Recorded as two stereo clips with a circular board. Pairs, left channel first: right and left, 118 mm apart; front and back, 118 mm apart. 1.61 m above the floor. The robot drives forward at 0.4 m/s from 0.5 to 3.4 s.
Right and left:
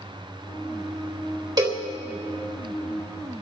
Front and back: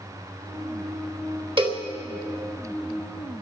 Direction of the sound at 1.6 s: 145° left.